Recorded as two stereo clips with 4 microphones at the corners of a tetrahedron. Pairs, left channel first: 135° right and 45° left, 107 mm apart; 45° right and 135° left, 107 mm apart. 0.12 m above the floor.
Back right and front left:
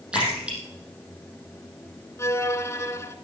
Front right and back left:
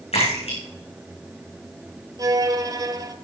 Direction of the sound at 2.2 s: 170° left.